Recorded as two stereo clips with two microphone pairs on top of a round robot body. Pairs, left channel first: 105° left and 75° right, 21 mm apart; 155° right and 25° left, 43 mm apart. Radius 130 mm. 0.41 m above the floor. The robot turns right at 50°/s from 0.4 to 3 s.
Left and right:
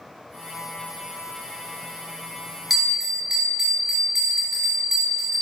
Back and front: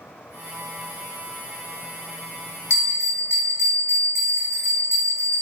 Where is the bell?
155° right, 3 m; by 5.4 s 140° right, 3 m.